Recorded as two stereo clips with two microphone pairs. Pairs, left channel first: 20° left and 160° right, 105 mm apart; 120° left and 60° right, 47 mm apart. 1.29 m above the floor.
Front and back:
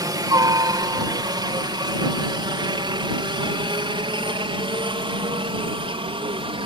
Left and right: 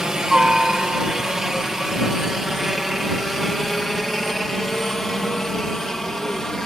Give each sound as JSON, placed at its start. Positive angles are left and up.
{"t": 0.0, "sound": "a helicopter", "azimuth_deg": -130}